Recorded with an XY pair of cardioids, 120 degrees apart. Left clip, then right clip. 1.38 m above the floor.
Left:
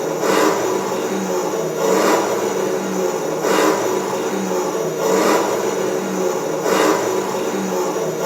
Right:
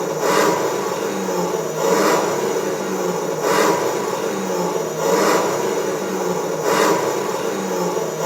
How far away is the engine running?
About 1.6 m.